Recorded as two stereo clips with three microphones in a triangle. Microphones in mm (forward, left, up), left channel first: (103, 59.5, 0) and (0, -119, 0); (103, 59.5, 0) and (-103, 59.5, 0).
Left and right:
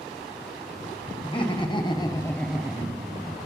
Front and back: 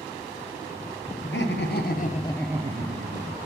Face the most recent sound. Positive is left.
turn(degrees=175)